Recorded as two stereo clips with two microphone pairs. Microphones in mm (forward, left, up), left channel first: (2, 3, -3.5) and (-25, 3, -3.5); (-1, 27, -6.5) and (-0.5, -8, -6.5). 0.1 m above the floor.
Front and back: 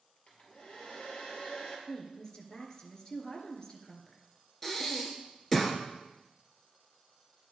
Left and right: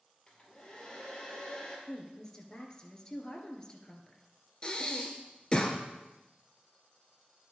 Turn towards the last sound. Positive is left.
turn(degrees=65)